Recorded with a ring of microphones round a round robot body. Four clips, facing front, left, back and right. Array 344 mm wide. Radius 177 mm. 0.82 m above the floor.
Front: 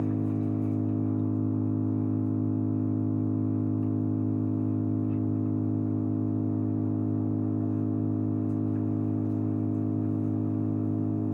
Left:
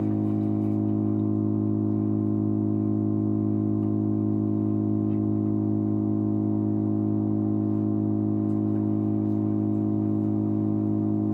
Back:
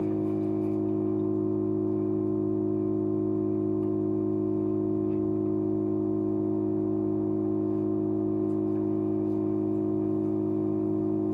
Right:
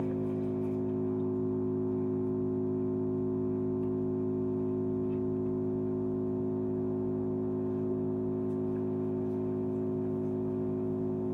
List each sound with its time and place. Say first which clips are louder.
0.0 s an engine running: left 7 dB, back 2 dB; 70° left, 8.5 m